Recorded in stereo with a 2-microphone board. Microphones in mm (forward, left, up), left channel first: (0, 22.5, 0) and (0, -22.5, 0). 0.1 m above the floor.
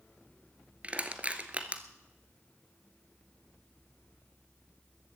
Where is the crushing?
30° right (ahead or behind), 1.3 m.